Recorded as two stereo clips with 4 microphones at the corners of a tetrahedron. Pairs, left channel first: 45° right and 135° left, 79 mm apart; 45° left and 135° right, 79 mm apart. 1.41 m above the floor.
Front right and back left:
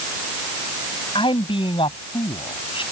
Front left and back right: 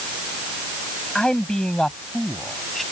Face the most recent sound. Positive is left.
turn(degrees=-40)